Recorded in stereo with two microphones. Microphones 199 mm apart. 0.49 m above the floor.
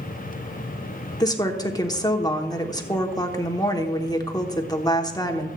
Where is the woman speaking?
20° left (ahead or behind), 1.2 m.